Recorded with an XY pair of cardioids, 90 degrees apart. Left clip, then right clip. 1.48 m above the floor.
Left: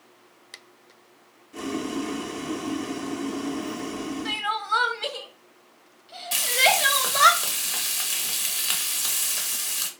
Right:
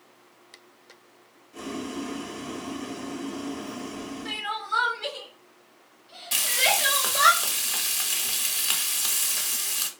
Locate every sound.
1.5 s boiling: 45° left, 0.6 m
4.2 s crying: 55° left, 1.0 m
6.3 s frying: 5° right, 0.8 m